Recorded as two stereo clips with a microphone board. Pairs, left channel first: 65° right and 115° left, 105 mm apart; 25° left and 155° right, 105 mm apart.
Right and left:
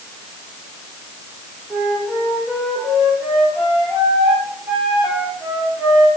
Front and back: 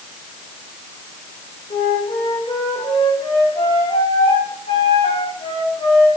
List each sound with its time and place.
1.7 s a flute: 30° left, 9.5 m